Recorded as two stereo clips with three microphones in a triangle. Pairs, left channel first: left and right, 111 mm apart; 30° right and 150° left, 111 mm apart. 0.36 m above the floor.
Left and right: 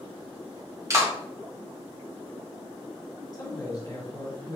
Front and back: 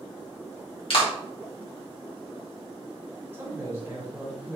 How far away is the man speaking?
About 1.7 m.